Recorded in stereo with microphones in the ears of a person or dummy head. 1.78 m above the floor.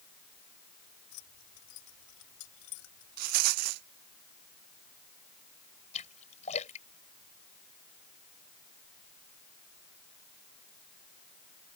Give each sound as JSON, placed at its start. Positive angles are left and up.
{"t": 1.1, "sound": "keys jangling", "side_deg": 65}
{"t": 3.2, "sound": "a rattle", "side_deg": -50}
{"t": 5.9, "sound": "a splash", "side_deg": 30}